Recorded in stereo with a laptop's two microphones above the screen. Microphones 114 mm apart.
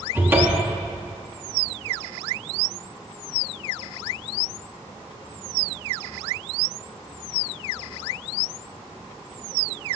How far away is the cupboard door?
About 1.0 m.